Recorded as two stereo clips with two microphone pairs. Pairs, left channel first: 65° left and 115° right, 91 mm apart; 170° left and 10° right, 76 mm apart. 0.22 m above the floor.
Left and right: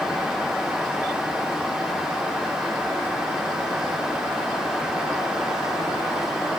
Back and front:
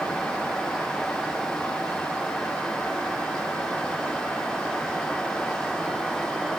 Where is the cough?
I don't hear a cough.